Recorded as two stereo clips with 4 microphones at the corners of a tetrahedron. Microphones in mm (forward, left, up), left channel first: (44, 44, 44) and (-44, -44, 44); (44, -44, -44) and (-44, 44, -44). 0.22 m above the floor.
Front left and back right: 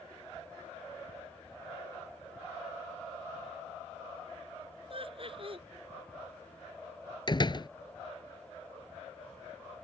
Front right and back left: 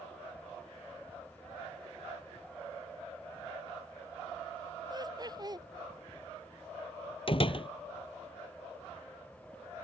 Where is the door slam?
5° right.